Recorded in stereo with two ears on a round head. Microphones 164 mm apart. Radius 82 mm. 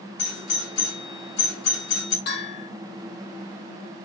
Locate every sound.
0.2 s a doorbell: 60° left (ahead or behind), 4 m
2.3 s a bell: 60° left (ahead or behind), 5.5 m